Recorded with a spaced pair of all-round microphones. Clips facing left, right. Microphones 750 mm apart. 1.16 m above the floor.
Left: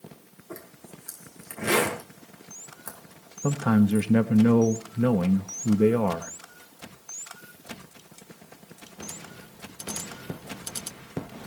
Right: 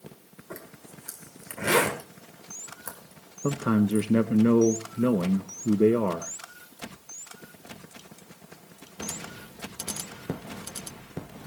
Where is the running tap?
I don't hear a running tap.